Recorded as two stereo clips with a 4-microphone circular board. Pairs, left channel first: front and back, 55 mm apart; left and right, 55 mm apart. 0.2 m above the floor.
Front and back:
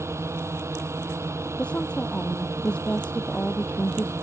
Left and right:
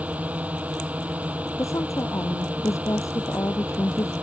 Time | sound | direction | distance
0.0 | a drone | 150° right | ?
1.6 | a woman speaking | 70° left | ?